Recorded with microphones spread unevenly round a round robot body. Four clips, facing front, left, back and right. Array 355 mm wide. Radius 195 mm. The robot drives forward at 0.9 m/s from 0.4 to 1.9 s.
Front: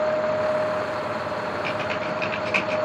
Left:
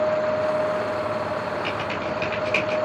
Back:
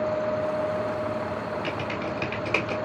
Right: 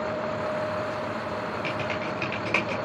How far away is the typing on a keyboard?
About 3.5 m.